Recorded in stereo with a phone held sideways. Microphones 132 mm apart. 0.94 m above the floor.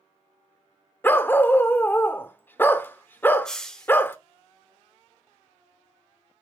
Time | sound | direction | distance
1.0 | a dog barking | 15° left (ahead or behind) | 0.6 m
3.5 | a hiss | 5° left (ahead or behind) | 1.0 m